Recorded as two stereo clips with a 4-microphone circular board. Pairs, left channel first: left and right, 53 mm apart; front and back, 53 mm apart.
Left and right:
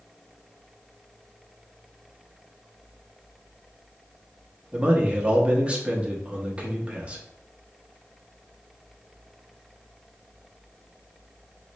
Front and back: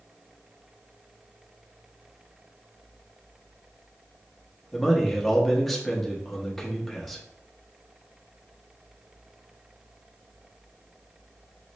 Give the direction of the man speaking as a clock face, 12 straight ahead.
3 o'clock.